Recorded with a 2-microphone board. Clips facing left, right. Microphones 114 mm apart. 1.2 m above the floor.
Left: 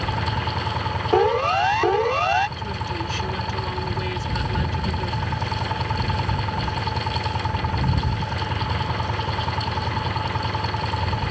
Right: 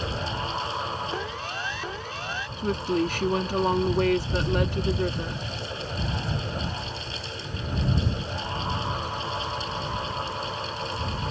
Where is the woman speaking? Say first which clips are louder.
Right 4 dB; 55° right (ahead or behind).